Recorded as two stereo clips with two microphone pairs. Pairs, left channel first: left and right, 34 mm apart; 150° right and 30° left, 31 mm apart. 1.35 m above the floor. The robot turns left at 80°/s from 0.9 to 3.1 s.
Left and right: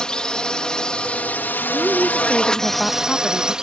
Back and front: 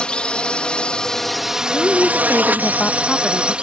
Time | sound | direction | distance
0.0 | a drone | 155° left | ?
1.7 | a woman speaking | 115° right | ?